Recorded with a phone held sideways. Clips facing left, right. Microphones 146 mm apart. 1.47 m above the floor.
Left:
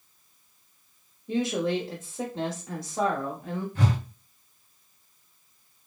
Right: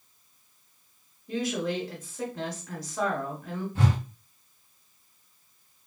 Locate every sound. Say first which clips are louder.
1.3 s a woman speaking: left 3 dB; 25° left (ahead or behind), 1.0 m
3.8 s a whoosh: right 1 dB; 25° right (ahead or behind), 1.9 m